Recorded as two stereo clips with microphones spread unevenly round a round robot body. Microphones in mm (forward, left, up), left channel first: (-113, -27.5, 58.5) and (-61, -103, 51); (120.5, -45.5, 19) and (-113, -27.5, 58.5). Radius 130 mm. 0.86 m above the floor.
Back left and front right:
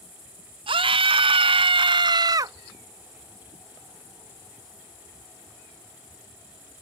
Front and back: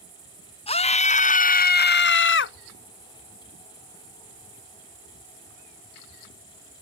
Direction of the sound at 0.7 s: 65° right.